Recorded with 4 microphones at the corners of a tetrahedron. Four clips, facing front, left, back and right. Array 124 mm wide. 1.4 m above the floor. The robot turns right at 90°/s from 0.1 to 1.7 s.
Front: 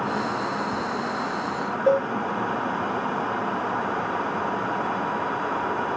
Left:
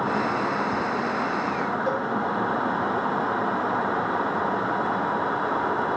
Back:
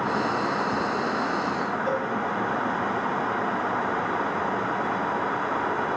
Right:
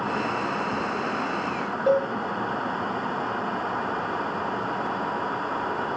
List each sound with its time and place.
1.9 s a cowbell: 25° right, 0.8 m